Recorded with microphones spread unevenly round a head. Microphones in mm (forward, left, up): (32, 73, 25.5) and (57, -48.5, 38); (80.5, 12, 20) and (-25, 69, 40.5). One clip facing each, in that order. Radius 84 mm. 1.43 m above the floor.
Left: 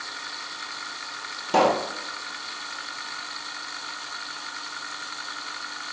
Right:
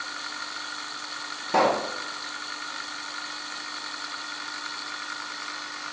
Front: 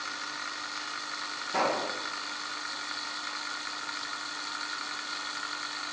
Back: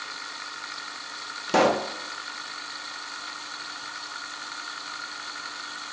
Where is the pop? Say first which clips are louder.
Left 2 dB, back 8 dB; straight behind, 1.5 m.